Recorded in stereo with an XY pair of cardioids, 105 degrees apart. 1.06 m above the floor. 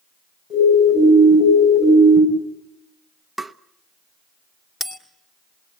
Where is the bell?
45° left, 2.5 m.